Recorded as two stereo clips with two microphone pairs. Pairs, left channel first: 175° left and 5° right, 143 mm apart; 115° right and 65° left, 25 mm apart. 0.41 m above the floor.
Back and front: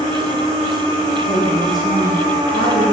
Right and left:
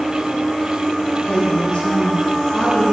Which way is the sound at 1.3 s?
Straight behind.